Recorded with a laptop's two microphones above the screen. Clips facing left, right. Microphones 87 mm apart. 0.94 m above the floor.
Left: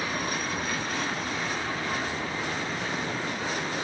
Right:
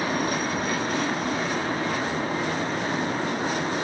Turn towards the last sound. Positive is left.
turn(degrees=-40)  # may be behind; listen again after turning